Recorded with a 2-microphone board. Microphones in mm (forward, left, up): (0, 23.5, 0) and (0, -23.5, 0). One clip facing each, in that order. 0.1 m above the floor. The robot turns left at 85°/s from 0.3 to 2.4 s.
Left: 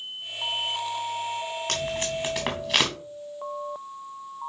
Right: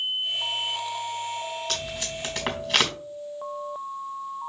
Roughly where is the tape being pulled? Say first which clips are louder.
Left 4 dB; left.